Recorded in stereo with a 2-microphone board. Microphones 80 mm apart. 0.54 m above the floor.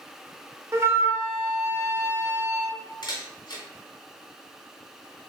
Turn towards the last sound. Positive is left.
turn(degrees=65)  # may be behind; listen again after turning